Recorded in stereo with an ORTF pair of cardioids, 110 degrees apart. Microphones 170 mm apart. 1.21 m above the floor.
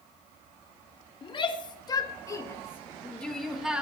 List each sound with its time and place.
1.2 s a shout: 30° left, 2.5 m; by 3.8 s 5° right, 1.6 m